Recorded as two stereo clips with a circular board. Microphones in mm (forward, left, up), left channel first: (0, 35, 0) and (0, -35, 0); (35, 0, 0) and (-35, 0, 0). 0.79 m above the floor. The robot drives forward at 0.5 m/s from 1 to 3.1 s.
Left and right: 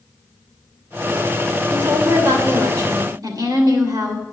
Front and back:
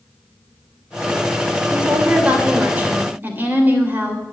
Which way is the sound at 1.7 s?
105° right.